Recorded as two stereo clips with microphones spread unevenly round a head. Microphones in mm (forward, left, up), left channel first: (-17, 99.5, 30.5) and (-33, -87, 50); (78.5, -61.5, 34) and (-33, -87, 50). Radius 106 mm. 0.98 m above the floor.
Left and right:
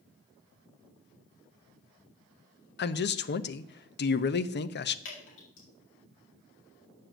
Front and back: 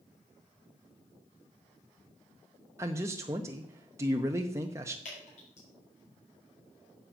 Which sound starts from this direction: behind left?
A man speaking, at 2.8 s.